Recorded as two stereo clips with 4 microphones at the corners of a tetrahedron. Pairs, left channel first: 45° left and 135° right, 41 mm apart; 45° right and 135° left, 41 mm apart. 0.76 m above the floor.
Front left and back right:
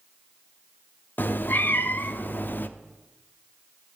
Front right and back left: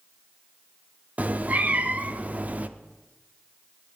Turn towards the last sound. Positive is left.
turn(degrees=85)